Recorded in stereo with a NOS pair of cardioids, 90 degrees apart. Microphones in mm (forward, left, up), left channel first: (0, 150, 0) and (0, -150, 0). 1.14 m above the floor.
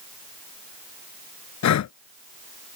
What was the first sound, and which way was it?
Breathing, 70° left.